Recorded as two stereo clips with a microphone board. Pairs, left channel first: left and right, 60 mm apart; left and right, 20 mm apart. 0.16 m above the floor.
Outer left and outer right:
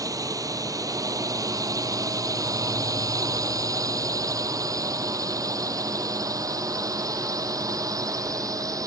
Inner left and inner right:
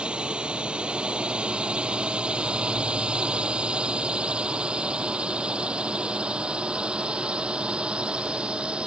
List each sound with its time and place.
0.0 s a drone: 65° right (ahead or behind)